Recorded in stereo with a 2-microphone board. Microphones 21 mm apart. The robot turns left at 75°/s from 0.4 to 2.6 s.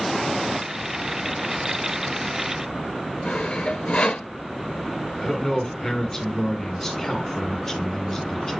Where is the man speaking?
20° left (ahead or behind), 2.5 m.